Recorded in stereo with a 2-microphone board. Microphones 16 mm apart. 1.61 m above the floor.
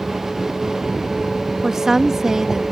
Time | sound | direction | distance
1.6 | a woman speaking | 40° right (ahead or behind) | ?